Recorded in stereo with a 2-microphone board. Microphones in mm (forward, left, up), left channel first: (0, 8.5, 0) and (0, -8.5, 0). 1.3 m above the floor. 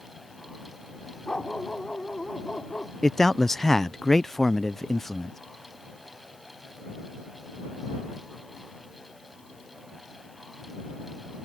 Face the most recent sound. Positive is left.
turn(degrees=20)  # may be behind; listen again after turning